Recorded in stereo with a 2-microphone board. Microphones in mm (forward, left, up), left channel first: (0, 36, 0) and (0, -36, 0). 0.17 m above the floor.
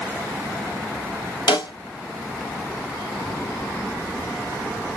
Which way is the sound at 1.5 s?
80° left.